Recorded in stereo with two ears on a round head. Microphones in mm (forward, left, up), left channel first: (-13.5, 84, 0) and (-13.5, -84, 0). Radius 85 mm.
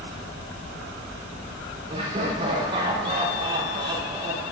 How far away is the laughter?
About 3.5 m.